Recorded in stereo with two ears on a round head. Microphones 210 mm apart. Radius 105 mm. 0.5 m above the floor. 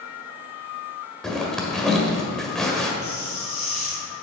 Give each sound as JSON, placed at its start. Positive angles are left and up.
{"t": 1.2, "sound": "a zipper", "side_deg": 0, "distance_m": 1.4}
{"t": 3.0, "sound": "a hiss", "side_deg": 30, "distance_m": 3.0}